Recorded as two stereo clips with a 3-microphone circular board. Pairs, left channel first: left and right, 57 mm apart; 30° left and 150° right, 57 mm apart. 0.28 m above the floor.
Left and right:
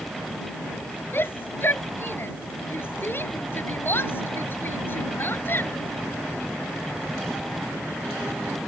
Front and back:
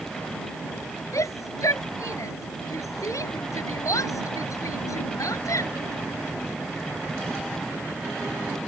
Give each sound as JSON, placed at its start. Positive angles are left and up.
{"t": 1.1, "sound": "a shout", "azimuth_deg": 45}